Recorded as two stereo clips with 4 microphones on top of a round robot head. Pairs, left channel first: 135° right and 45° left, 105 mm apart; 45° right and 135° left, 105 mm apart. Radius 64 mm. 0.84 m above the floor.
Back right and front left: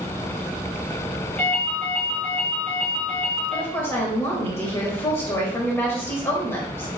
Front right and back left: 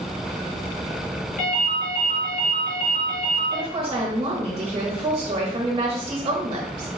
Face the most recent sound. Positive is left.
turn(degrees=170)